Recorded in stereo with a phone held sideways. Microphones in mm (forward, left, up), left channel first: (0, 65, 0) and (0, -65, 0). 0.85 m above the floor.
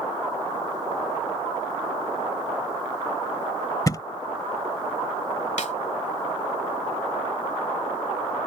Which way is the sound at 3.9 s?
30° left (ahead or behind).